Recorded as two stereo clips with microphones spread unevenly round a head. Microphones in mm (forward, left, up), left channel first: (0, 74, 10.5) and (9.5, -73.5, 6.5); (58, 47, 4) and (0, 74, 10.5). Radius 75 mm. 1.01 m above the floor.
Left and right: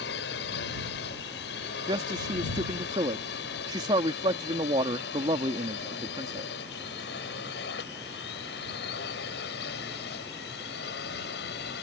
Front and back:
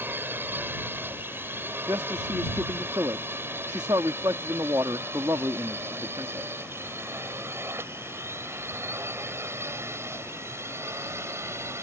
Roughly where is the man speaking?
Behind right.